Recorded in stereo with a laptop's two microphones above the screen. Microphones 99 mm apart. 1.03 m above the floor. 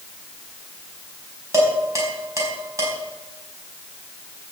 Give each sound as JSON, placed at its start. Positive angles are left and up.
{"t": 1.5, "sound": "dishes clattering", "side_deg": -30, "distance_m": 5.5}